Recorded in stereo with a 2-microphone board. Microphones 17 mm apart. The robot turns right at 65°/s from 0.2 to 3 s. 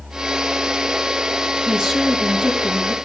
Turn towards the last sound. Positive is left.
turn(degrees=30)